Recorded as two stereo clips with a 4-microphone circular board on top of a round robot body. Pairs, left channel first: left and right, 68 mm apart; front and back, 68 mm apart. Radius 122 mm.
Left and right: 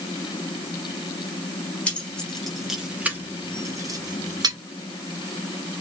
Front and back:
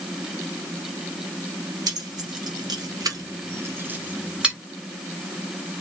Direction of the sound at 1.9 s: 165° left.